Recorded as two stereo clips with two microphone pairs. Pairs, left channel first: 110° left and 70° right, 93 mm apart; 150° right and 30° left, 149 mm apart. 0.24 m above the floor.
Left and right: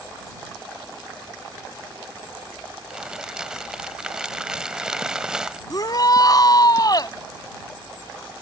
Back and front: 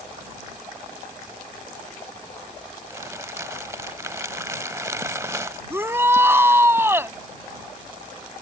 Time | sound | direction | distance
2.9 | crumpling | 10° right | ?
5.7 | a shout | 100° left | ?